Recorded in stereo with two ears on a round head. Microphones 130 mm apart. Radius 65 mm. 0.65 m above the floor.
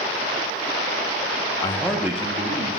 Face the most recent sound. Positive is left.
turn(degrees=-50)  # may be behind; listen again after turning